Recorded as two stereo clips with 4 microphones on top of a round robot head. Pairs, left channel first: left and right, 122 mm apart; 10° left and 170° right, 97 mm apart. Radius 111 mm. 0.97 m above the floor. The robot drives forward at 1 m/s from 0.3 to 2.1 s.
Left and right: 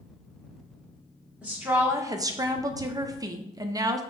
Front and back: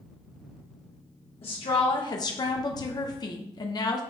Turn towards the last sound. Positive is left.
turn(degrees=-30)